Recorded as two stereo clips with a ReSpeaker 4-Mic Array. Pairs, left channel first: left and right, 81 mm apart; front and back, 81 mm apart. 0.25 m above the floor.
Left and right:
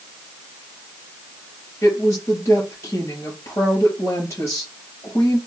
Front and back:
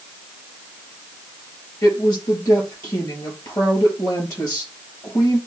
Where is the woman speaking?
40° left, 5 m.